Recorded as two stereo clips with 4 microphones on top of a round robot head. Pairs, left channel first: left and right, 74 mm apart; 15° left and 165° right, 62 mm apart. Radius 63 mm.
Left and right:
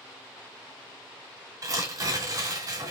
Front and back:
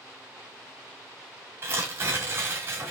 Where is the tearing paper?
125° right, 2 m.